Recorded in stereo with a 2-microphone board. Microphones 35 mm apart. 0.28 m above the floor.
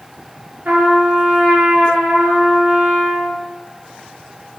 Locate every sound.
0.7 s a trumpet: 65° right (ahead or behind), 1.3 m